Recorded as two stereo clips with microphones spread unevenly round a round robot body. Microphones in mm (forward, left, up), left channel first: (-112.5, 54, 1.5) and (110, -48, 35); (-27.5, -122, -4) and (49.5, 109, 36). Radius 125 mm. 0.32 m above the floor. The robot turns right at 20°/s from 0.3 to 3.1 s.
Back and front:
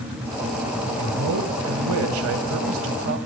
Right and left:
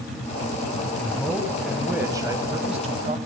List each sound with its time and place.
1.0 s a man speaking: 35° right, 2.5 m; by 3.2 s 10° left, 2.5 m